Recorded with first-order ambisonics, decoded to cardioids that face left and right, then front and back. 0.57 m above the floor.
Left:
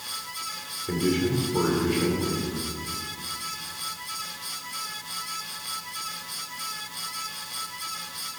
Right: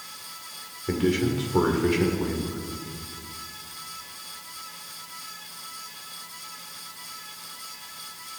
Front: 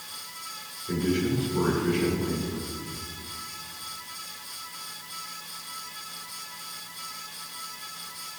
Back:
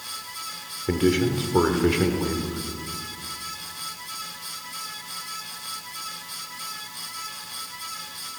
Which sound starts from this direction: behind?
A man speaking, at 0.9 s.